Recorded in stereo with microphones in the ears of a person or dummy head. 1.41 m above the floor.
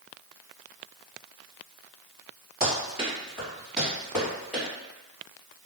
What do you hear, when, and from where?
2.6 s running footsteps: 20° right (ahead or behind), 1.8 m; by 4.6 s centre (ahead or behind), 2.5 m